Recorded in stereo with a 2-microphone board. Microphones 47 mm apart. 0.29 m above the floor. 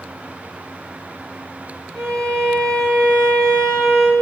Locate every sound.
1.9 s a violin: 15° left (ahead or behind), 3 m